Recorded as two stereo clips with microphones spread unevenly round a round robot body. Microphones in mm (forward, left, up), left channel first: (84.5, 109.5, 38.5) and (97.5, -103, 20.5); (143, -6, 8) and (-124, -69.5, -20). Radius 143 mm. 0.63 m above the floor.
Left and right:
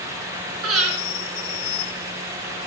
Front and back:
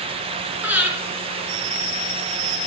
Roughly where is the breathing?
Right.